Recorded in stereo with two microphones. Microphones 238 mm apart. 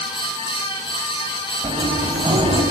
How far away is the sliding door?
About 3 m.